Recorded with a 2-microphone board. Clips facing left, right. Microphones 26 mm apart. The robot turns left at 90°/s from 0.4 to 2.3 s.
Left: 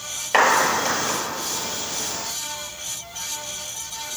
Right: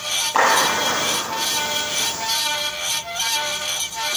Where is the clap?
60° left (ahead or behind), 6.5 m; by 1.2 s 10° right (ahead or behind), 6.5 m.